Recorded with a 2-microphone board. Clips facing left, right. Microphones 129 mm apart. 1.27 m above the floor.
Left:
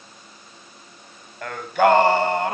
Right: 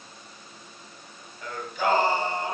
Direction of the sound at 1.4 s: 70° left (ahead or behind).